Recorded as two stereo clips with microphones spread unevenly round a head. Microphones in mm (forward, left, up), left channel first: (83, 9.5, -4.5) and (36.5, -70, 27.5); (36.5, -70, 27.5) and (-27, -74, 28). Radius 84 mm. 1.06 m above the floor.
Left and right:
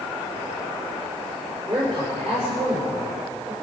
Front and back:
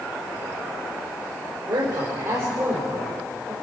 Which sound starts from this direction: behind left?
A man speaking, at 1.7 s.